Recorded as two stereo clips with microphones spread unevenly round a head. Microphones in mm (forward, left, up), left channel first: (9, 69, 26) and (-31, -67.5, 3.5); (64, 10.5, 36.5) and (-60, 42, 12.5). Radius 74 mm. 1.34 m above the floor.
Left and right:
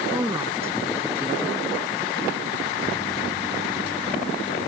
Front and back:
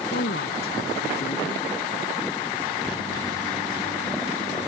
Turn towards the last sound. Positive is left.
turn(degrees=-30)